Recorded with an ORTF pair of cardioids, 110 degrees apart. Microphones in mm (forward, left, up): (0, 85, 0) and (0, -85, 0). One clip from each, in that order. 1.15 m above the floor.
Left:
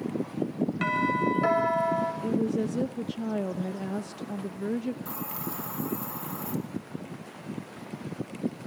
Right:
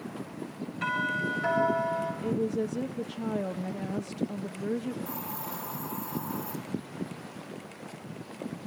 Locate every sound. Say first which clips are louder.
0.8 s a doorbell: left 2 dB; 60° left, 8 m
2.2 s a woman speaking: left 1 dB; 5° left, 0.9 m
5.0 s a hiss: left 1 dB; 40° left, 5 m